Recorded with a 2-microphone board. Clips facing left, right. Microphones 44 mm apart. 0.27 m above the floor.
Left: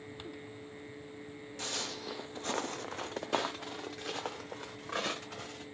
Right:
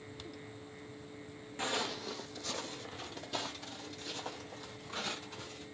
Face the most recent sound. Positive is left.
turn(degrees=80)